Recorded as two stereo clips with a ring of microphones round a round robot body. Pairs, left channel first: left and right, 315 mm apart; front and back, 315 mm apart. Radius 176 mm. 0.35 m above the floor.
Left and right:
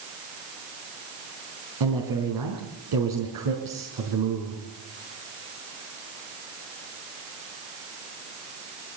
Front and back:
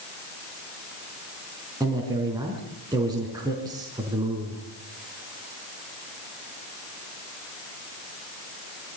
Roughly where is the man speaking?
Right.